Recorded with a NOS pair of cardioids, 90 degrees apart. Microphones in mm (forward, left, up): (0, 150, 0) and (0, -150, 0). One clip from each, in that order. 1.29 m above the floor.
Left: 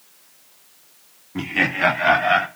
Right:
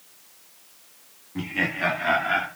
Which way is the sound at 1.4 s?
40° left.